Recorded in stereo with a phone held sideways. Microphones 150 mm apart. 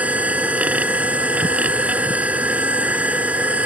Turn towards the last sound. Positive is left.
turn(degrees=-10)  # may be behind; listen again after turning